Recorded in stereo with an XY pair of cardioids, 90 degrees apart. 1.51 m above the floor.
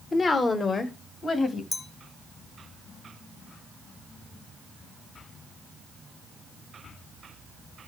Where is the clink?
50° left, 1.5 m.